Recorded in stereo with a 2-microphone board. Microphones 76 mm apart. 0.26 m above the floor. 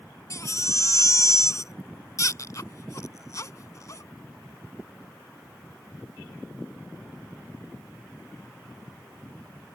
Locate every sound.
0.3 s a baby crying: 45° left (ahead or behind)